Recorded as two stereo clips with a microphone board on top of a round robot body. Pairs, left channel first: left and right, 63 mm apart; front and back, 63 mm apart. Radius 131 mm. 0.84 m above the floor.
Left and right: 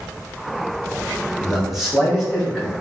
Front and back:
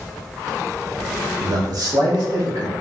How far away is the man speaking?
About 0.7 m.